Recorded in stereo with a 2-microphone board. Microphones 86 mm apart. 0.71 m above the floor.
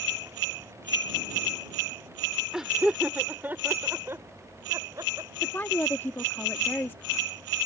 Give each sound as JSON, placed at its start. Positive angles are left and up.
{"t": 2.5, "sound": "laughter", "side_deg": -5}
{"t": 5.4, "sound": "a woman speaking", "side_deg": 25}